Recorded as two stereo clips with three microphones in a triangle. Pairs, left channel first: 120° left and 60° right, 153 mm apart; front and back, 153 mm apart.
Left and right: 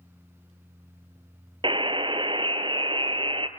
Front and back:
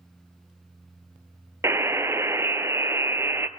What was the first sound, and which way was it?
A buzzer, 110° right.